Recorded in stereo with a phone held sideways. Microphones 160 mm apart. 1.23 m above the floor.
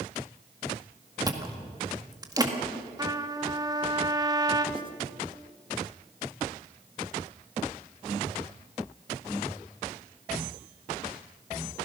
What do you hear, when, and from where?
1.3 s chewing: 25° right (ahead or behind), 1.8 m
3.0 s a trumpet: 25° right (ahead or behind), 0.9 m
4.8 s writing: 30° right (ahead or behind), 1.8 m